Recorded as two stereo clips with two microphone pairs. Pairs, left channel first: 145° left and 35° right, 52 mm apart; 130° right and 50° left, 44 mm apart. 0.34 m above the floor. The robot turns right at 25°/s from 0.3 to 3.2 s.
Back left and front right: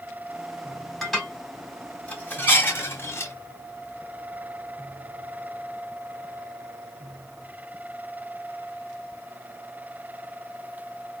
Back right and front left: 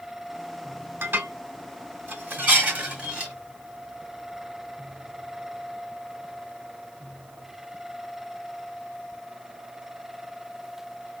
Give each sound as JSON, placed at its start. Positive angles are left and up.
{"t": 1.0, "sound": "dishes clattering", "azimuth_deg": 60, "distance_m": 1.2}